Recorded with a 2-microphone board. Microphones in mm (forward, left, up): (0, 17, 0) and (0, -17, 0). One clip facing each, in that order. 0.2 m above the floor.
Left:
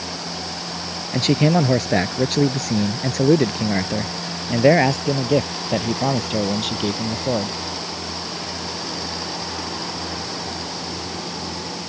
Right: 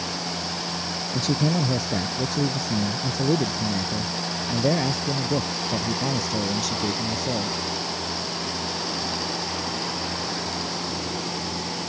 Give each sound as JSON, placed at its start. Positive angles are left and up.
{"t": 1.1, "sound": "a man speaking", "side_deg": 55}